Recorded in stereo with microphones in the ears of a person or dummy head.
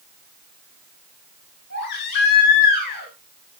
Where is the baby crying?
65° left (ahead or behind), 6.5 m.